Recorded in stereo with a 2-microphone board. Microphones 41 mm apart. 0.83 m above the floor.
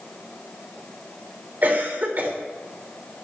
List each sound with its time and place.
1.6 s a cough: 40° right (ahead or behind), 3 m